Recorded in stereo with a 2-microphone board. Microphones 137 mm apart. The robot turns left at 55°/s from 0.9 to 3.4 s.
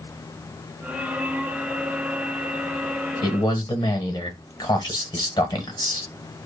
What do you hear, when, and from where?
3.2 s a man speaking: 30° left (ahead or behind), 1.1 m